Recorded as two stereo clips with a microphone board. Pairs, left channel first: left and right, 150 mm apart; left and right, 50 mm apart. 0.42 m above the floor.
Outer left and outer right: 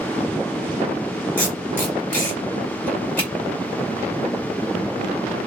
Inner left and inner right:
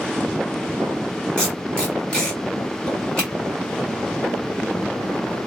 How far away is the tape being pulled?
About 1.8 m.